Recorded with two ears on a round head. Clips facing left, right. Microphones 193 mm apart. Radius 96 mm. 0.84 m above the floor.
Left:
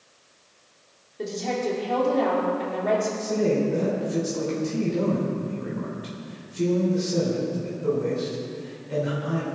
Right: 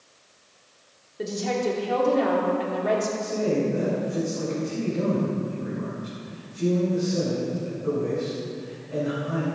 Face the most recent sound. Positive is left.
turn(degrees=75)  # may be behind; listen again after turning